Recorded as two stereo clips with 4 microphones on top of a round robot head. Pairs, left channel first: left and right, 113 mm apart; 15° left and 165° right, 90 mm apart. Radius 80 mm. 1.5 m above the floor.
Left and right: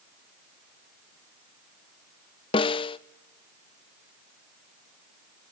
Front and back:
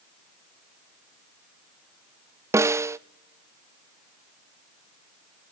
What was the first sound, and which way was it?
A snare drum, 135° left.